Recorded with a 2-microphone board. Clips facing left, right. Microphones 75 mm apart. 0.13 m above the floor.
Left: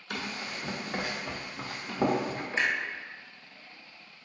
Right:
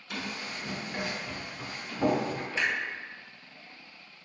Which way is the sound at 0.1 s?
55° left (ahead or behind).